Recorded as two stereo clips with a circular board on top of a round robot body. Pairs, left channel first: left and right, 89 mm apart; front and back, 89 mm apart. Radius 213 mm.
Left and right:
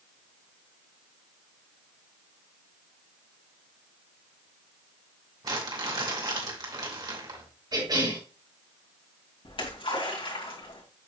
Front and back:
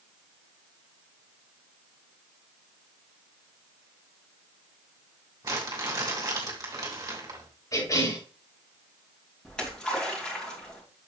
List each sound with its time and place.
5.4 s crumpling: 125° right, 2.5 m
7.7 s a cough: 50° right, 6.5 m
9.4 s a splash: 80° left, 3 m